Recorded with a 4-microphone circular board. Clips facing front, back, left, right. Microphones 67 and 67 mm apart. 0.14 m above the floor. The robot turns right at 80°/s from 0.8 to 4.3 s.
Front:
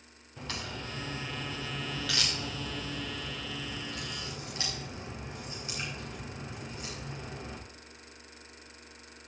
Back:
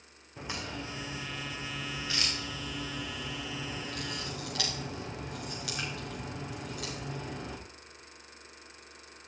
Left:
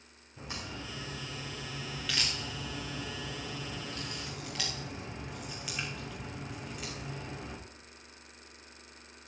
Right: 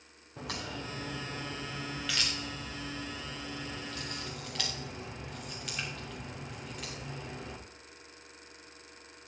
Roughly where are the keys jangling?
No keys jangling in this recording.